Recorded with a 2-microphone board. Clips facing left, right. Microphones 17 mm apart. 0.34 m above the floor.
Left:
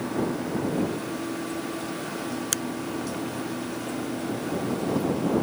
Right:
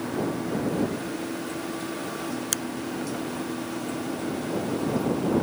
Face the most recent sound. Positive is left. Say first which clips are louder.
# left 1 dB
turn(degrees=0)  # may be behind; listen again after turning